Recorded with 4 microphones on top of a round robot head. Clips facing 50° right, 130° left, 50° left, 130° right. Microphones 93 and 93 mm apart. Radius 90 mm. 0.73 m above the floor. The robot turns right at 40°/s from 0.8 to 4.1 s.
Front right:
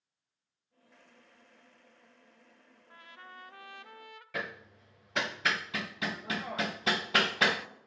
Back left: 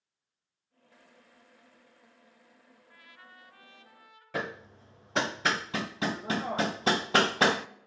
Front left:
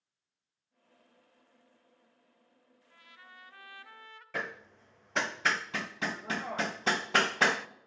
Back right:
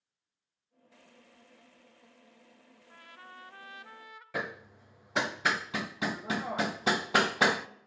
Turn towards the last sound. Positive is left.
turn(degrees=155)